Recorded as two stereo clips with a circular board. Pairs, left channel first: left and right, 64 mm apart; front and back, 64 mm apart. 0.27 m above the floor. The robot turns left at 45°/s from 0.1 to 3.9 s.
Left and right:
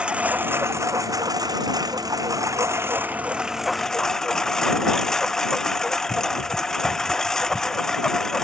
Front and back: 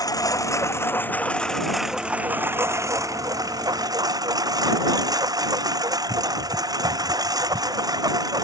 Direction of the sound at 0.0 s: 15° right.